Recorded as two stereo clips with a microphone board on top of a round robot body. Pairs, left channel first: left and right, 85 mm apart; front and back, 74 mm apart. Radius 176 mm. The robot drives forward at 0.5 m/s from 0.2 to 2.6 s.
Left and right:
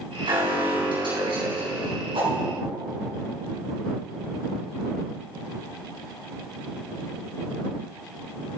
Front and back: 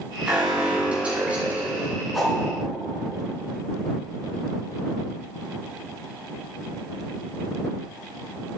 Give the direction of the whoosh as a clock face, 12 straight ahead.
3 o'clock.